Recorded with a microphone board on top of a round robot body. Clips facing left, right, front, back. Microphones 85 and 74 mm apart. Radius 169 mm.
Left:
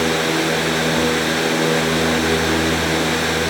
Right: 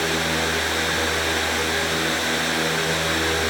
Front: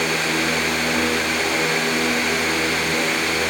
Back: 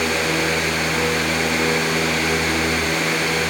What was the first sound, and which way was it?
Only background noise.